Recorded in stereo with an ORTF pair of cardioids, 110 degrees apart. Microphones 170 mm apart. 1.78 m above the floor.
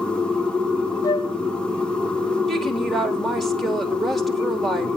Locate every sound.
0.0 s a machine running: 5° left, 1.7 m
1.0 s a flute: 20° left, 1.6 m
2.5 s a woman speaking: straight ahead, 4 m